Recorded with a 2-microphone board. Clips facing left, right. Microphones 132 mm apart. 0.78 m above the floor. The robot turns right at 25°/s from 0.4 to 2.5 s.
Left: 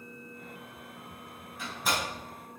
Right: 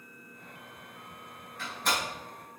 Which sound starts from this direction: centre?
A door slam, at 1.6 s.